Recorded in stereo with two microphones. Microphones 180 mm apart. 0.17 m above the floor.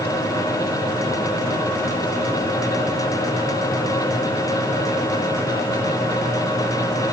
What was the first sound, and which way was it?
Only background noise.